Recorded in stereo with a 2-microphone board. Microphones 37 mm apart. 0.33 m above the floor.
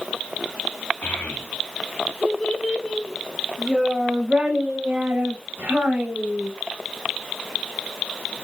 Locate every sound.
1.0 s a child speaking: 50° left (ahead or behind), 1.7 m; by 6.5 s 50° right (ahead or behind), 2 m